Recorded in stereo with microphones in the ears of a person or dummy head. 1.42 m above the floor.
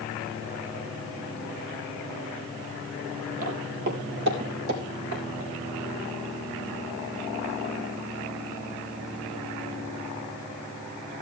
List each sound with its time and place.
3.4 s footsteps: 45° right (ahead or behind), 2.5 m; by 5.2 s 70° right (ahead or behind), 4 m